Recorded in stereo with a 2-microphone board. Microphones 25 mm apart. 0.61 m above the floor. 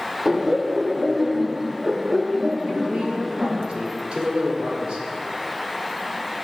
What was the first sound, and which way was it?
Laughter, 20° right (ahead or behind).